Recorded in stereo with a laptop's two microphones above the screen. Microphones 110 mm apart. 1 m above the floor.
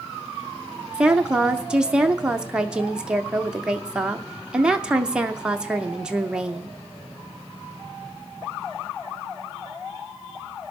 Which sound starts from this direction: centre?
A woman speaking, at 0.9 s.